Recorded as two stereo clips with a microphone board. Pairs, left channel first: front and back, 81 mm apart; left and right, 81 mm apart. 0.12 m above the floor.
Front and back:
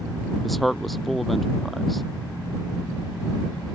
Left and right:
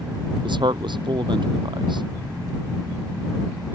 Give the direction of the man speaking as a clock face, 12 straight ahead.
3 o'clock.